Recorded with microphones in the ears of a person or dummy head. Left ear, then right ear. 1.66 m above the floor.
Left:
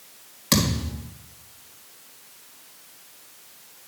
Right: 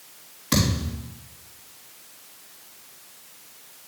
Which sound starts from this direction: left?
A thud, at 0.5 s.